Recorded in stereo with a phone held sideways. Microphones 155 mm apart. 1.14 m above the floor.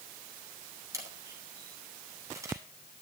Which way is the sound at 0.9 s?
20° right (ahead or behind).